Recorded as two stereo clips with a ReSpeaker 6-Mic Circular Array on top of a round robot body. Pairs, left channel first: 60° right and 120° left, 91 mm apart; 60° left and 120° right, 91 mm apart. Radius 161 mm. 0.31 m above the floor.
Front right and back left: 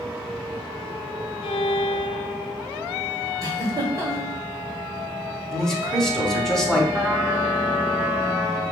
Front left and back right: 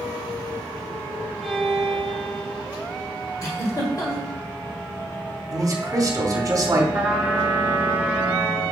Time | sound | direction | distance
1.4 | a violin | 35° right | 0.5 m
3.4 | a giggle | 85° left | 1.6 m
5.5 | a man speaking | 140° right | 1.2 m
6.9 | a trumpet | 175° left | 1.4 m